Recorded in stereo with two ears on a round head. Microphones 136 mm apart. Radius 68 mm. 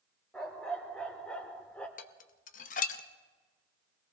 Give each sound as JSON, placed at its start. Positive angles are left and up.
{"t": 0.3, "sound": "a dog barking", "side_deg": 5, "distance_m": 2.5}
{"t": 2.0, "sound": "dishes clattering", "side_deg": 55, "distance_m": 0.8}